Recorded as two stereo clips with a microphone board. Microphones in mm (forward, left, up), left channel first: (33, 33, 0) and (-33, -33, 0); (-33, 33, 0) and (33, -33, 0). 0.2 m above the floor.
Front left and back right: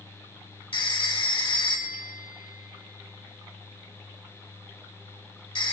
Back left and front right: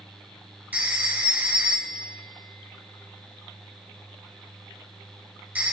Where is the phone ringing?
25° left, 1.9 m.